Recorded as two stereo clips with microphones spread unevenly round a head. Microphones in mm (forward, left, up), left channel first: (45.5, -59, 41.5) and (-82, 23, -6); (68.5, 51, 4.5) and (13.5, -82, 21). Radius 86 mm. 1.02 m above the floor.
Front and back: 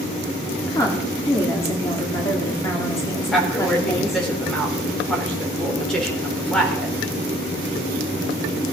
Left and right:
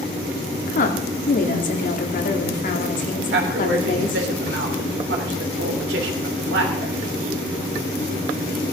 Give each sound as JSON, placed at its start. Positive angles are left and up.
{"t": 0.7, "sound": "a woman speaking", "azimuth_deg": 45, "distance_m": 2.5}
{"t": 3.3, "sound": "a woman speaking", "azimuth_deg": -120, "distance_m": 3.5}